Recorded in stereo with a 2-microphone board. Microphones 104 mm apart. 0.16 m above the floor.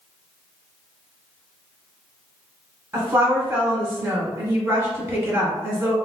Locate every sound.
2.9 s a woman speaking: 25° right (ahead or behind), 1.3 m